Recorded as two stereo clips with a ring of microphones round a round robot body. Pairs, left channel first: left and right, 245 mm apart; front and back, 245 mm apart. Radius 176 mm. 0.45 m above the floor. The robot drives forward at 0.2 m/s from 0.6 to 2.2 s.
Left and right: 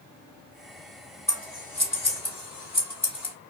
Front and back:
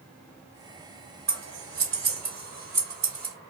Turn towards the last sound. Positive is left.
turn(degrees=155)